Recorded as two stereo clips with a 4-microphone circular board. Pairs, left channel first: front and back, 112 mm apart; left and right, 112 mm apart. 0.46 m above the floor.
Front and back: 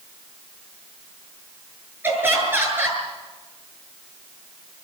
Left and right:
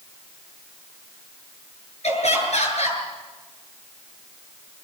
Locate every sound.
2.0 s laughter: 110° left, 8.5 m